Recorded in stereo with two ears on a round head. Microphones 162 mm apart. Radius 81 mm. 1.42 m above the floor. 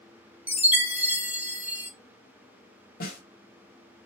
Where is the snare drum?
55° left (ahead or behind), 1.7 m.